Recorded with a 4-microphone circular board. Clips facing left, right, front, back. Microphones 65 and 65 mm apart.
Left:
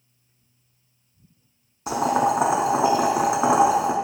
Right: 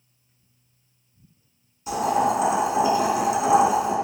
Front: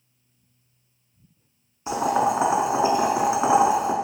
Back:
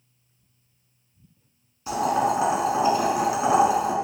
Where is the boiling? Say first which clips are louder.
Left 1 dB, front 1 dB; 65° left, 0.6 m.